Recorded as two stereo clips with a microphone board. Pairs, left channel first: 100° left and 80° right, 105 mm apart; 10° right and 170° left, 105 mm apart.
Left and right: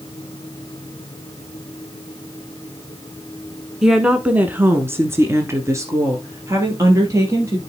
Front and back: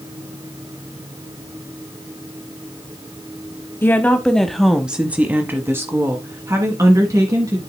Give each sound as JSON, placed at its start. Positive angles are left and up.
{"t": 3.8, "sound": "a woman speaking", "azimuth_deg": -5, "distance_m": 1.0}